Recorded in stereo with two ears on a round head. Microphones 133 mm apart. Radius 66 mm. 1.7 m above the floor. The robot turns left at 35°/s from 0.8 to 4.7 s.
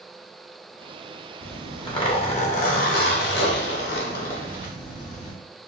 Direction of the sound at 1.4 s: 165° left.